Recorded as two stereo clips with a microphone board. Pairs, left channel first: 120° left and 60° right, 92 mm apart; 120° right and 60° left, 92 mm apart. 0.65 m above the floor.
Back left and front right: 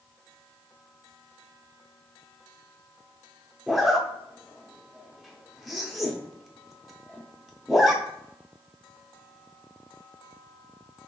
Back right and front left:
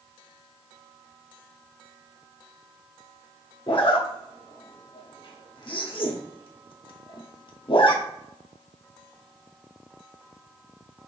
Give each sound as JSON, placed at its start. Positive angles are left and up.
{"t": 3.7, "sound": "a zipper", "azimuth_deg": -150, "distance_m": 0.7}